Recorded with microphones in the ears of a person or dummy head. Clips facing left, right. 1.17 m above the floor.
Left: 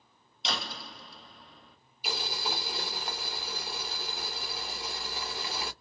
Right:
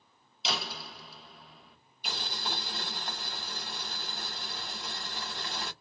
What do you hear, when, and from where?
0.4 s a door slam: centre (ahead or behind), 0.8 m
2.0 s boiling: 10° left (ahead or behind), 1.6 m